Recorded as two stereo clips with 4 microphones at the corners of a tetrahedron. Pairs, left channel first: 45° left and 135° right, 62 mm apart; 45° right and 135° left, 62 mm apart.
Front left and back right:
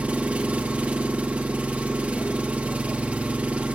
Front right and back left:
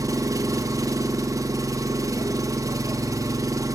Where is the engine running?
155° left, 1.3 m.